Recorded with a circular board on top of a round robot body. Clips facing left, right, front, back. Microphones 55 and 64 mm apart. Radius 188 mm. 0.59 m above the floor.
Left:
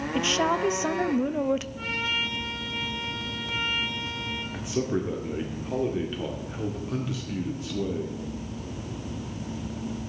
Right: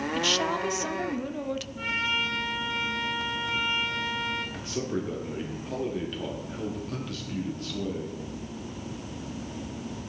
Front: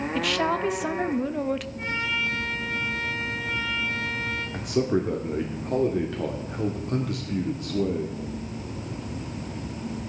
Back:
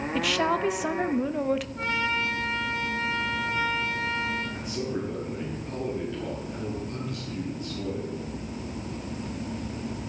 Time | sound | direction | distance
0.1 | a woman speaking | 95° left | 0.8 m
1.8 | a trumpet | 175° right | 3.5 m
4.5 | a man speaking | 15° left | 1.8 m